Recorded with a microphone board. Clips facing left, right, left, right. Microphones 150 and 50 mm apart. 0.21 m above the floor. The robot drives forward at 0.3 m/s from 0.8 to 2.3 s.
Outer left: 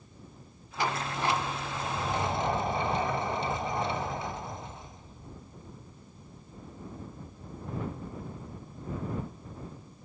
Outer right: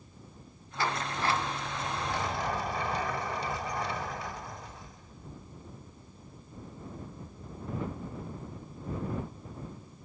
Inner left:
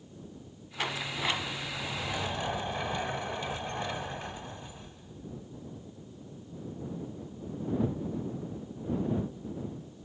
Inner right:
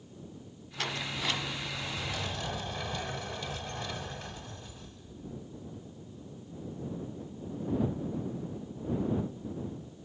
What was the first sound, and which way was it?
A sliding door, 15° left (ahead or behind).